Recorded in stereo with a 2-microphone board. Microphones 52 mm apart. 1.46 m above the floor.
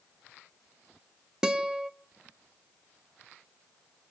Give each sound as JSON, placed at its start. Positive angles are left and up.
{"t": 1.4, "sound": "a guitar", "side_deg": -15, "distance_m": 1.3}